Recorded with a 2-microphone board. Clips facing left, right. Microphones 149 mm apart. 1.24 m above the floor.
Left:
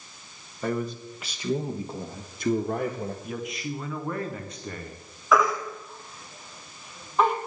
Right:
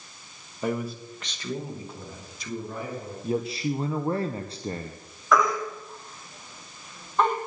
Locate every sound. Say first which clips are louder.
0.6 s a man speaking: even; 10° right (ahead or behind), 1.4 m; by 3.1 s 75° left (ahead or behind), 1.5 m
3.2 s a man speaking: right 6 dB; 30° right (ahead or behind), 0.8 m
5.3 s a baby crying: even; 5° left (ahead or behind), 1.9 m